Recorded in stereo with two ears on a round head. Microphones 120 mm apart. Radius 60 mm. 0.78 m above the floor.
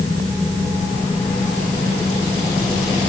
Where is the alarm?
I don't hear an alarm.